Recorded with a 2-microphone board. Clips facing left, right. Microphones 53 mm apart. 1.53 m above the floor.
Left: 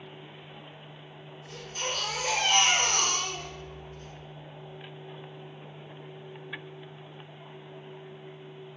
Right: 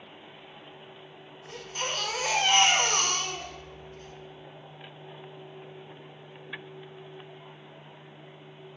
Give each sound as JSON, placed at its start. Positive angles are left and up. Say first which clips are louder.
{"t": 1.5, "sound": "a baby crying", "louder": "right 1 dB", "side_deg": -40, "distance_m": 1.1}